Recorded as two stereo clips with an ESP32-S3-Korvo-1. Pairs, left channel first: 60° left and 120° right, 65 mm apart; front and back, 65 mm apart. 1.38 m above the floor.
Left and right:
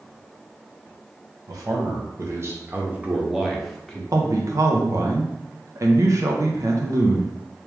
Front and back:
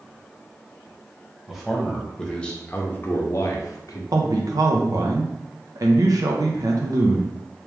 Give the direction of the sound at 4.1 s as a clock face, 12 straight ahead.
5 o'clock.